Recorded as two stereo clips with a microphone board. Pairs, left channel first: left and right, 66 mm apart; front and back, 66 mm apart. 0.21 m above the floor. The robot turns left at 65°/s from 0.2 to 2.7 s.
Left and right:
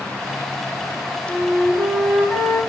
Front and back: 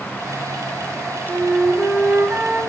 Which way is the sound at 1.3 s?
145° right.